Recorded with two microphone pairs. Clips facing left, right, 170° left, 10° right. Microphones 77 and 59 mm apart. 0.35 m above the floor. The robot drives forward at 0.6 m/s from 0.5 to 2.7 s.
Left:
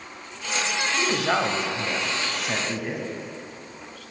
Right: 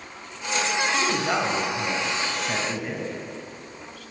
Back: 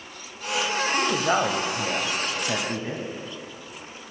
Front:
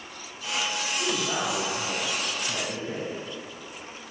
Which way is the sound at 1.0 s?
160° left.